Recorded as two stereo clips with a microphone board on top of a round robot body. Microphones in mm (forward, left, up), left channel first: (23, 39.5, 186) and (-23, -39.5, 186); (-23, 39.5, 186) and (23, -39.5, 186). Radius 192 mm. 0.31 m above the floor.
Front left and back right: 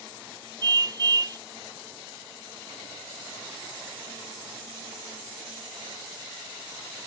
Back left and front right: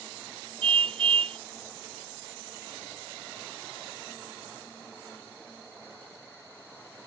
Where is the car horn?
75° right.